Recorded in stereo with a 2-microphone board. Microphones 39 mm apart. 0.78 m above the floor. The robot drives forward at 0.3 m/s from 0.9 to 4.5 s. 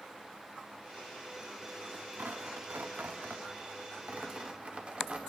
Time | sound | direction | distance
2.2 | tearing paper | 80° right | 0.5 m